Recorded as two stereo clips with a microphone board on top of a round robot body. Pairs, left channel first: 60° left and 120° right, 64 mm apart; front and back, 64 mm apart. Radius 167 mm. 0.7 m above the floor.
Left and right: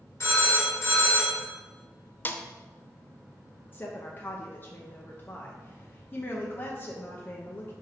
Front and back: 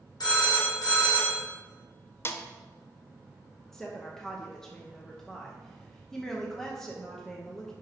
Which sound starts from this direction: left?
A woman speaking, at 3.7 s.